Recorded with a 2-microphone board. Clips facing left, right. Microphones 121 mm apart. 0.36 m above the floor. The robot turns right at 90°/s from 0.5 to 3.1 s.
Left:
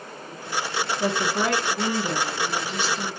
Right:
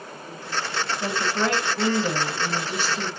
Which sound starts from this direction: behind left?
A woman speaking, at 1.0 s.